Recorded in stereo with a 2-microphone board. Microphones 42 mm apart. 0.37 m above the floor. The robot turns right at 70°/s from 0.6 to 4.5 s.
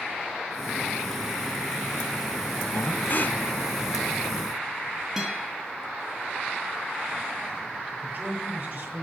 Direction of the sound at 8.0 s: 50° right (ahead or behind).